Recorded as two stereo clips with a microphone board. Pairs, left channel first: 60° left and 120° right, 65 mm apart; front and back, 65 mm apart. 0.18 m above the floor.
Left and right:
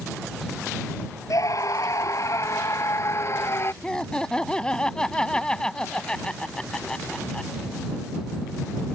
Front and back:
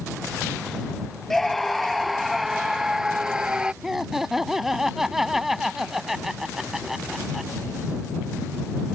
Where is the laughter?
105° left.